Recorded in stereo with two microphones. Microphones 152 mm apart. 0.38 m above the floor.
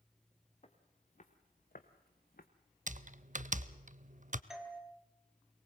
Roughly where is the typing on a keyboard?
Right.